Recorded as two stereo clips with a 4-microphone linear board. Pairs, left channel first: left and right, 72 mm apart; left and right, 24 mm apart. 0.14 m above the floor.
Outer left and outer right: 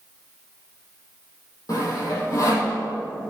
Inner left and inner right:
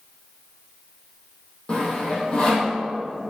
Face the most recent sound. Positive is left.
turn(degrees=50)  # may be behind; listen again after turning